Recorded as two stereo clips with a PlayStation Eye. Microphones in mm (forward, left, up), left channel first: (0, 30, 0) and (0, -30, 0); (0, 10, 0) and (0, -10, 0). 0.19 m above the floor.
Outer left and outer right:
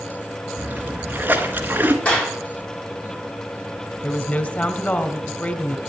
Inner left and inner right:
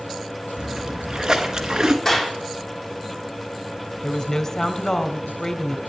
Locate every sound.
0.6 s a splash: 30° right (ahead or behind), 1.9 m
2.0 s a clap: 20° left (ahead or behind), 9 m
4.0 s a woman speaking: 25° left (ahead or behind), 1.6 m